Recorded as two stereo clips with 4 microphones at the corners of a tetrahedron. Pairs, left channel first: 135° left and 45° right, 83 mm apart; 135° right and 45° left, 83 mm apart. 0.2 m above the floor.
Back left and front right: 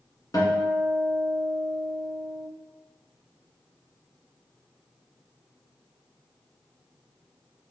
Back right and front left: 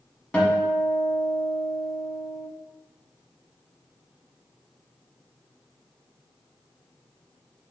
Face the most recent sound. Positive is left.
turn(degrees=155)